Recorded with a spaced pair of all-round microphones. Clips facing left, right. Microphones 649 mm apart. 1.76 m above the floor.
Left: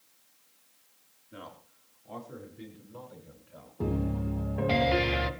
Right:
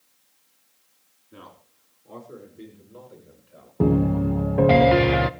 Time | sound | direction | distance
1.3 | a man speaking | 15° left (ahead or behind) | 4.5 m
3.8 | a piano | 75° right (ahead or behind) | 0.9 m